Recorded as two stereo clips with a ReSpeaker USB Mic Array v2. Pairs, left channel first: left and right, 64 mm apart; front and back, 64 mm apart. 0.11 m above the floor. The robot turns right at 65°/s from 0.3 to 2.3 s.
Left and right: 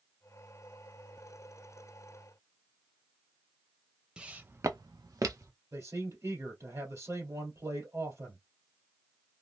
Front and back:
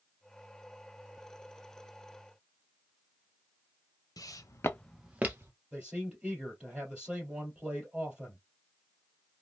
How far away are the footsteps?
About 0.9 m.